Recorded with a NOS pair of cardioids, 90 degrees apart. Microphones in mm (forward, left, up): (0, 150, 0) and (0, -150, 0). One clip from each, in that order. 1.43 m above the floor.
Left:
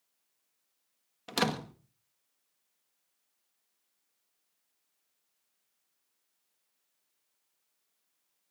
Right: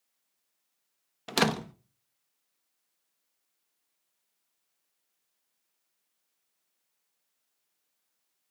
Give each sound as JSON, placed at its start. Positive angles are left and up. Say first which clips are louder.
{"t": 1.3, "sound": "a door slam", "louder": "right 4 dB", "azimuth_deg": -30, "distance_m": 1.5}